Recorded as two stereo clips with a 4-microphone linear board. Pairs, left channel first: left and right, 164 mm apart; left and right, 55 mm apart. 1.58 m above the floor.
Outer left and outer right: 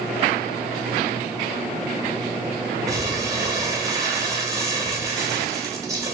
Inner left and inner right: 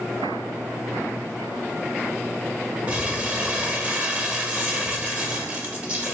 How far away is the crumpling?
About 0.9 m.